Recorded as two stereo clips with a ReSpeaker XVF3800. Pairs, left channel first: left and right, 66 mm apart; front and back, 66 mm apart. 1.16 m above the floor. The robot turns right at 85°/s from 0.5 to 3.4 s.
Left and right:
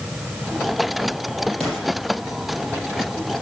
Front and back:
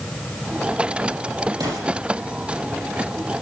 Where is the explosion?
175° left, 7.5 m; by 1.9 s 155° right, 7.5 m.